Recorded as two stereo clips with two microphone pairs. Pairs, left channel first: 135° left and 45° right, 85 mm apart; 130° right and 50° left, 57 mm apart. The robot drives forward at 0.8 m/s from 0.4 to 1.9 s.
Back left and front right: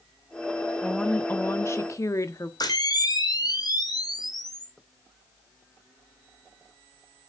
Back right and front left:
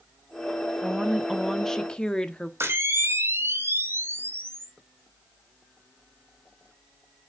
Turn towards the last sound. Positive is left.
turn(degrees=90)